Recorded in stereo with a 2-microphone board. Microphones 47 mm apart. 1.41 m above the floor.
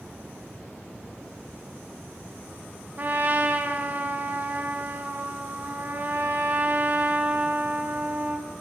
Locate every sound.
3.0 s a trumpet: 40° right (ahead or behind), 2 m